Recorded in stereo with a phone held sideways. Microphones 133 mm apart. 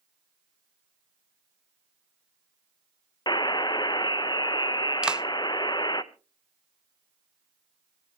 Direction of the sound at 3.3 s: 35° left (ahead or behind).